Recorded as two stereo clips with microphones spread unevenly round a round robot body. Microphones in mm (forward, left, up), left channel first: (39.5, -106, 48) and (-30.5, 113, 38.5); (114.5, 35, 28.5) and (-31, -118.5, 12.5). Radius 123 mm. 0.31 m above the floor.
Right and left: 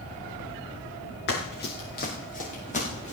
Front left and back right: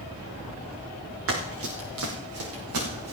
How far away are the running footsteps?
About 4 m.